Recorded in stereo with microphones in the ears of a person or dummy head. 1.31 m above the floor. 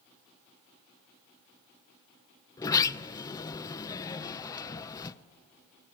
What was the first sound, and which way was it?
A sliding door, 25° left (ahead or behind).